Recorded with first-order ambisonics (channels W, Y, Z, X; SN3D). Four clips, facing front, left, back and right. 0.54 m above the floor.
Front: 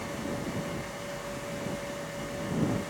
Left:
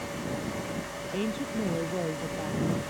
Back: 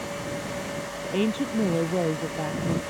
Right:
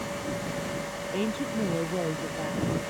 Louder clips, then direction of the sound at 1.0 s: Right 2 dB, back 11 dB; 175° right.